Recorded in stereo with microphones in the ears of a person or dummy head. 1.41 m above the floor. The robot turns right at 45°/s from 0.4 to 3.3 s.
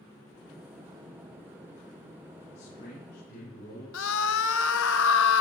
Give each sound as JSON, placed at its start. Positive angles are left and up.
{"t": 2.5, "sound": "a man speaking", "azimuth_deg": 35, "distance_m": 6.0}
{"t": 3.9, "sound": "a scream", "side_deg": 65, "distance_m": 0.9}